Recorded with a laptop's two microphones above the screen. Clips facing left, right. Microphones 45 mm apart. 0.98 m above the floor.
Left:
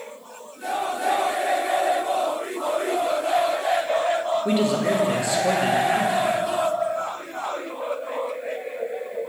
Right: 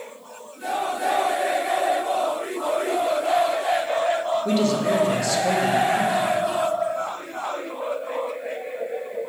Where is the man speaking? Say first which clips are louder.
Right 1 dB; 20° left (ahead or behind), 1.5 m.